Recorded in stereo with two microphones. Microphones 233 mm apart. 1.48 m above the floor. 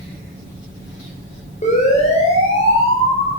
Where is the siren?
30° left (ahead or behind), 7.5 m; by 3.3 s 25° left (ahead or behind), 6.5 m.